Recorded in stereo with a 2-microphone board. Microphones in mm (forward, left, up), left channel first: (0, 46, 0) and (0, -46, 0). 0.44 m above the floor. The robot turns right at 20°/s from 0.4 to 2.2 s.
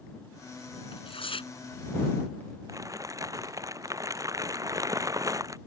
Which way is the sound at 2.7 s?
35° right (ahead or behind).